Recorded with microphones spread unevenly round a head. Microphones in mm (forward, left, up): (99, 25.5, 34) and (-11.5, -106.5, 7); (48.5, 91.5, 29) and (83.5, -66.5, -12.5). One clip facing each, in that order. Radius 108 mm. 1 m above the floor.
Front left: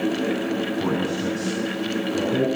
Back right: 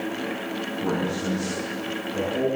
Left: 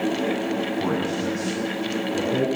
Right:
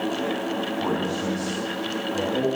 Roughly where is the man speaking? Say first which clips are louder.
Front left 2 dB, left 1 dB; ahead left.